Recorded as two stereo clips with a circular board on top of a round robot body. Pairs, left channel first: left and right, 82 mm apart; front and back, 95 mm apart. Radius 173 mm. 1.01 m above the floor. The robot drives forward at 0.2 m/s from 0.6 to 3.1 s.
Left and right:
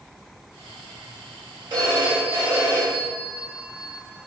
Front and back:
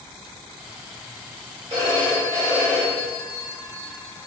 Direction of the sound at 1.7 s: 140° right.